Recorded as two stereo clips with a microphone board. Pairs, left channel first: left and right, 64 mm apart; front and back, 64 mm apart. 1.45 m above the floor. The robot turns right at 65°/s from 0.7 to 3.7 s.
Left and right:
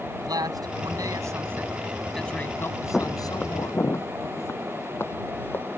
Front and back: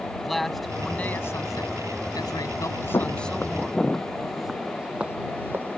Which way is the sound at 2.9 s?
10° left.